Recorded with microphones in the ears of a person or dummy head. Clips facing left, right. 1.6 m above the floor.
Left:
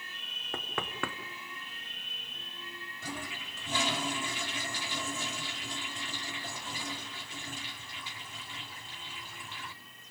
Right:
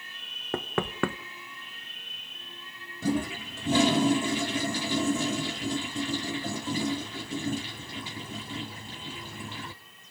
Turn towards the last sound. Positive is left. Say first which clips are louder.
# right 15 dB
turn(degrees=-30)  # may be behind; listen again after turning